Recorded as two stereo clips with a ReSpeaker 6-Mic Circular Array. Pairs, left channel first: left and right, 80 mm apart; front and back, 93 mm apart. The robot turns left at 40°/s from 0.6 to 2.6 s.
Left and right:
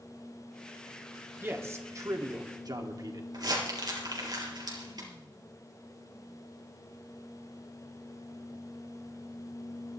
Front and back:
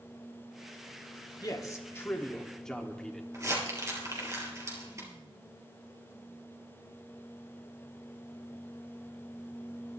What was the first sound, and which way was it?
A man speaking, 30° right.